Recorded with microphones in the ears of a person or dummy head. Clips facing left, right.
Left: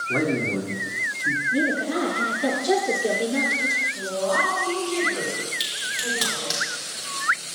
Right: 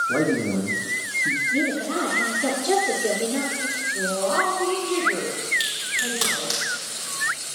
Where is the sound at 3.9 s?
75° right (ahead or behind), 2.5 m.